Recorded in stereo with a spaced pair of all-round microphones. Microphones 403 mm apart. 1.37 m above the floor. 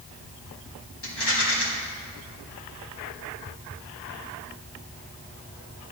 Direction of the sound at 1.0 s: 80° left.